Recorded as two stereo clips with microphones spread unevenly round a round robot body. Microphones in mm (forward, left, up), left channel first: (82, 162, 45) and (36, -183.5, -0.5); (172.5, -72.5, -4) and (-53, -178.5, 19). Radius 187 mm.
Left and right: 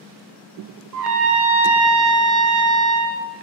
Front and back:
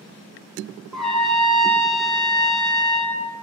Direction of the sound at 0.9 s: 70° right.